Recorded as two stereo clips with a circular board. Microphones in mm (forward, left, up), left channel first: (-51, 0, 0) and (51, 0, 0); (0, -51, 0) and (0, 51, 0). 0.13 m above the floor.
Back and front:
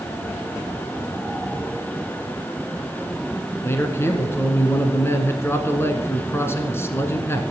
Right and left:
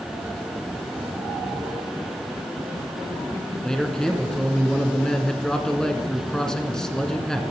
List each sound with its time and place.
3.6 s a man speaking: 165° right, 1.2 m